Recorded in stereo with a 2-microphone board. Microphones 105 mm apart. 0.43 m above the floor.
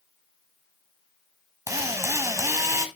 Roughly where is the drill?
Right.